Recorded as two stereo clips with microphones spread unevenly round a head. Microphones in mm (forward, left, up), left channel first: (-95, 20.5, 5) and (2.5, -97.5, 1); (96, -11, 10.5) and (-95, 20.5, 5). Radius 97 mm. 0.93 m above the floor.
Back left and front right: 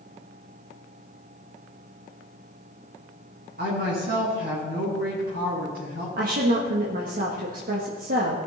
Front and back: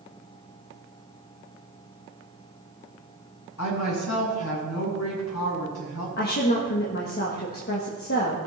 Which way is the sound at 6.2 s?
40° right.